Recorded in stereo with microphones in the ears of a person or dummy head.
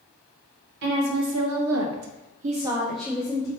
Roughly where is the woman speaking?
Right.